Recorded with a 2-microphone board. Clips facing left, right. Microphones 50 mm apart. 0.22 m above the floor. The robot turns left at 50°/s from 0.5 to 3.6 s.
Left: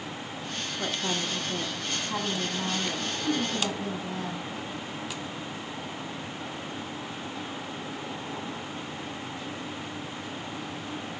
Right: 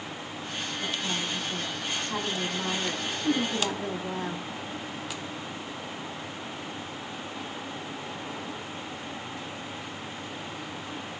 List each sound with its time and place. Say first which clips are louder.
0.8 s a woman speaking: left 2 dB; 90° left, 1.4 m; by 4.5 s 50° right, 1.4 m